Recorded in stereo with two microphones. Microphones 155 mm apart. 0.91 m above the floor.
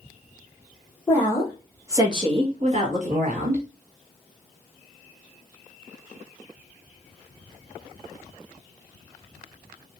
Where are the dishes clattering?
I don't hear dishes clattering.